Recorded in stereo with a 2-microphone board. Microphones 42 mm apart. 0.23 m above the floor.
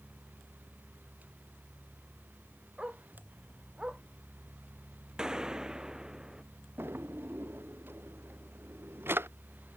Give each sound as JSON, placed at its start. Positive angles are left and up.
{"t": 2.8, "sound": "a dog barking", "side_deg": -25}
{"t": 5.2, "sound": "a gunshot", "side_deg": -20}
{"t": 6.8, "sound": "a drawer", "side_deg": -70}